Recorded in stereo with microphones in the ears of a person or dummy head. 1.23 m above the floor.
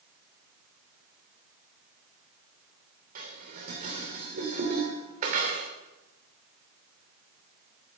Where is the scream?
No scream in this recording.